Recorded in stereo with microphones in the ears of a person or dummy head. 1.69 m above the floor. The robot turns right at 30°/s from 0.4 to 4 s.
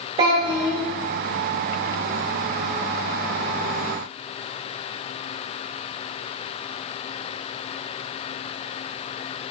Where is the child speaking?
30° right (ahead or behind), 0.8 m; by 0.8 s 25° right (ahead or behind), 0.8 m.